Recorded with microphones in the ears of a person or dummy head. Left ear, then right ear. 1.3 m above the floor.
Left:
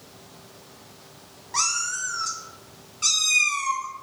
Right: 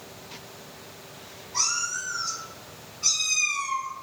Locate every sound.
1.5 s a cat meowing: 45° left (ahead or behind), 0.9 m